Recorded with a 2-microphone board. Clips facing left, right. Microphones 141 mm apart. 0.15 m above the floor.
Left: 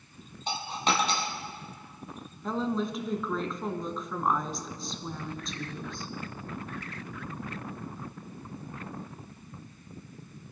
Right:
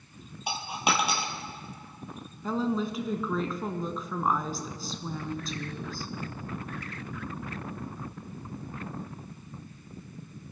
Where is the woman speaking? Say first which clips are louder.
Right 1 dB; centre (ahead or behind), 1.1 m.